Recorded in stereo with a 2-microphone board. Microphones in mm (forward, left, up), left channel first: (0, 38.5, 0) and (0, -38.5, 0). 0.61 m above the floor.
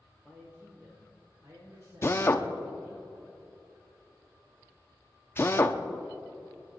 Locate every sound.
0.2 s a man speaking: 25° right (ahead or behind), 2.5 m; by 3.0 s 65° right (ahead or behind), 4 m
2.0 s a drill: 30° left (ahead or behind), 0.7 m